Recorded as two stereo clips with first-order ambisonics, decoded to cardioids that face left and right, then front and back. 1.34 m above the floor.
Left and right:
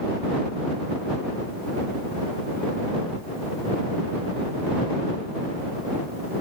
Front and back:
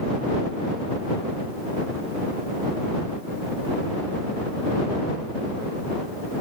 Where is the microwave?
I don't hear a microwave.